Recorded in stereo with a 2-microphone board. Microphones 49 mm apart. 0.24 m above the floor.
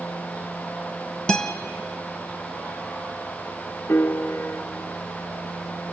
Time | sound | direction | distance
1.3 | a guitar | 15° left (ahead or behind) | 0.8 m
3.9 | a piano | 60° left (ahead or behind) | 0.8 m